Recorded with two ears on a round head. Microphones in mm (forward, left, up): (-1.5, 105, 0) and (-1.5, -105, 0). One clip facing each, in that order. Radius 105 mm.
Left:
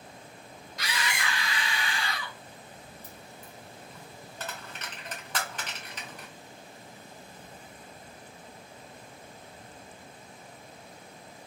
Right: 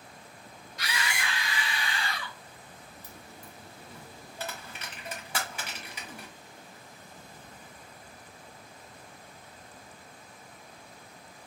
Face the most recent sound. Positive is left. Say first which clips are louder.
# left 1 dB
turn(degrees=-10)  # may be behind; listen again after turning